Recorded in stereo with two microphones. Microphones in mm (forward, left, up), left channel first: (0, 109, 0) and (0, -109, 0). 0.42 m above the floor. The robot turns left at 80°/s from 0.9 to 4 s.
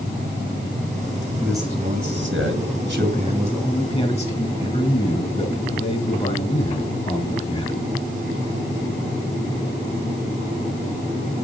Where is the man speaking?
5° right, 4 m; by 7.8 s 150° left, 4 m.